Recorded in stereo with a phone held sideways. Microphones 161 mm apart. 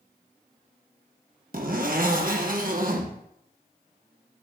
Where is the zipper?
60° right (ahead or behind), 1.1 m.